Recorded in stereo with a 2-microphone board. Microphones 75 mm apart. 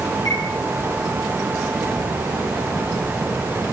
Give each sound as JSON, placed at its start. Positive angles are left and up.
{"t": 0.2, "sound": "a chime", "side_deg": 60, "distance_m": 5.5}